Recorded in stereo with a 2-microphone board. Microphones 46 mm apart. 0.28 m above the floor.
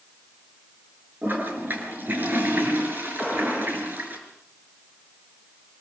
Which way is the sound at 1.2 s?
50° right (ahead or behind).